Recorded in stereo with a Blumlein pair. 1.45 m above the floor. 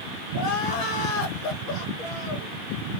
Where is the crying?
35° left, 0.9 m.